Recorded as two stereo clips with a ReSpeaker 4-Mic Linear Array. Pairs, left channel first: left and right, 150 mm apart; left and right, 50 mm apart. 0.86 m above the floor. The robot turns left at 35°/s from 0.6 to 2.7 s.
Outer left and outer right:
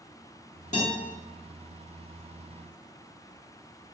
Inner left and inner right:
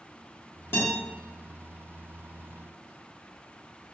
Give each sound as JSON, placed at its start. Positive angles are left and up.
{"t": 0.7, "sound": "a guitar", "side_deg": 55, "distance_m": 1.3}